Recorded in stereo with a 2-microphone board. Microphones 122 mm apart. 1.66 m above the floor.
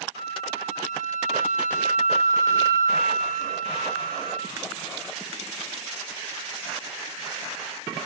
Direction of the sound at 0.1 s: 65° right (ahead or behind).